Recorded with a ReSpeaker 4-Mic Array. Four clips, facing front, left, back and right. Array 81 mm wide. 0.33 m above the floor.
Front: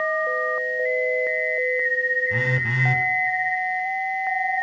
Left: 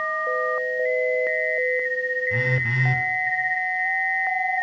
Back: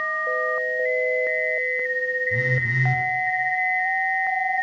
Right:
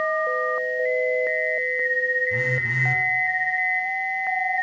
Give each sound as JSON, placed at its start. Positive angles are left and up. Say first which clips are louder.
{"t": 2.3, "sound": "a phone buzzing", "louder": "even, even", "azimuth_deg": 20, "distance_m": 1.7}